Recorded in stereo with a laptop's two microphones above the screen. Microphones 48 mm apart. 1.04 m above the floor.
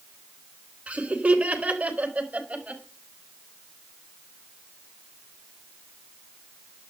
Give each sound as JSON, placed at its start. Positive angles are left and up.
{"t": 0.9, "sound": "laughter", "side_deg": -25, "distance_m": 3.0}